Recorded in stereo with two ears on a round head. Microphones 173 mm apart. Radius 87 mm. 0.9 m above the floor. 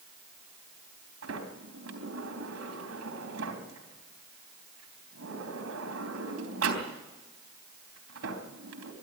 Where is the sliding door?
85° right, 3.5 m.